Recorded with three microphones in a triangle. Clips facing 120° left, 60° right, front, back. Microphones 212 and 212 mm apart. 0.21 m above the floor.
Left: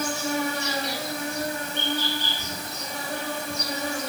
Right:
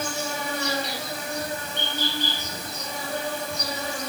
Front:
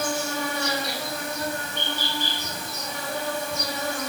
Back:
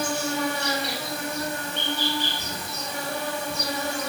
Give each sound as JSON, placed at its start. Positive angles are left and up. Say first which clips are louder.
{"t": 0.0, "sound": "an insect", "louder": "left 4 dB, back 1 dB", "azimuth_deg": 120, "distance_m": 1.1}